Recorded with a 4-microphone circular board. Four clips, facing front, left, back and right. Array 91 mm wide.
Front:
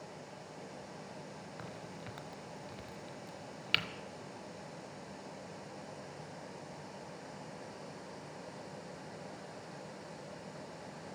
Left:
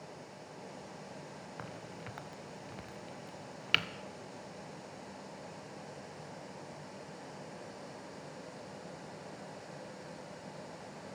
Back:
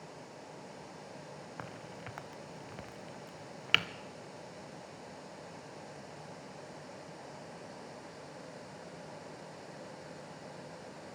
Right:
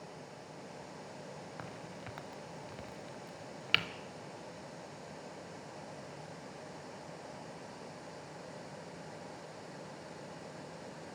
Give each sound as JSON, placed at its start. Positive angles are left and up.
{"t": 1.6, "sound": "a crack", "azimuth_deg": 175, "distance_m": 0.9}